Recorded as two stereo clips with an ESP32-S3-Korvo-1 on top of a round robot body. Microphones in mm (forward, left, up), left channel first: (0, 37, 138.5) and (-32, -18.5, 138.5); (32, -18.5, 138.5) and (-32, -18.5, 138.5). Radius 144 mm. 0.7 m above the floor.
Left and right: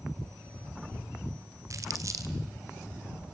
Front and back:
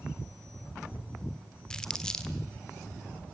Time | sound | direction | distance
1.7 | crumpling | 80° right | 1.6 m